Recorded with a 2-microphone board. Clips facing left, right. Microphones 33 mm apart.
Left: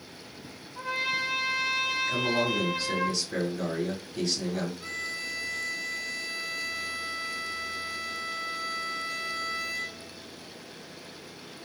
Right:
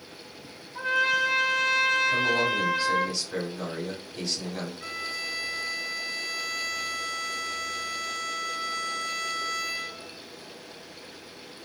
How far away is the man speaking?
About 1.5 m.